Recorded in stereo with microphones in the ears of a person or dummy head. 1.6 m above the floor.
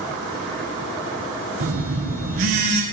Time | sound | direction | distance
1.6 | a phone buzzing | 50° right (ahead or behind) | 0.7 m